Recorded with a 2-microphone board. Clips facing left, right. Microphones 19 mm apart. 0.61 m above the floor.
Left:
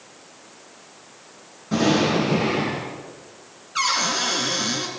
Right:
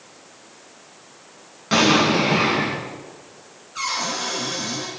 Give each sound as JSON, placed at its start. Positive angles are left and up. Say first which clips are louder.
{"t": 1.7, "sound": "an explosion", "louder": "right 3 dB", "side_deg": -70, "distance_m": 7.5}
{"t": 3.8, "sound": "a cupboard door", "louder": "left 3 dB", "side_deg": 40, "distance_m": 4.0}